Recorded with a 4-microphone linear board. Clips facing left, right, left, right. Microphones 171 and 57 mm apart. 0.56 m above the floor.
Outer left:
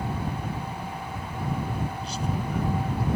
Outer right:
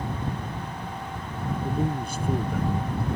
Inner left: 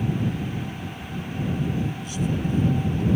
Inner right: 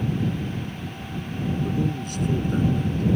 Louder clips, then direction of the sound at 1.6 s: Outer right 5 dB, inner right 2 dB; 55° right (ahead or behind).